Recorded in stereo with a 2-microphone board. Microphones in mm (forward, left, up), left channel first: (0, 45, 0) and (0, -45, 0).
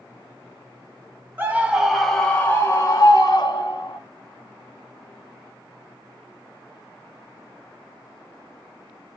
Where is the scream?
25° right (ahead or behind), 1.3 m; by 4.0 s 55° left (ahead or behind), 2 m.